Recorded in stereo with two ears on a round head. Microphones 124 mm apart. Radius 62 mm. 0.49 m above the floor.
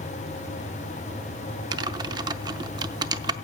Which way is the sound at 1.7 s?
30° right (ahead or behind).